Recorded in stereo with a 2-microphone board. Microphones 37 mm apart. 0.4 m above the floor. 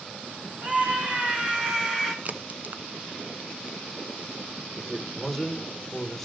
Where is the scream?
40° right (ahead or behind), 4 m; by 2.1 s 10° right (ahead or behind), 3 m.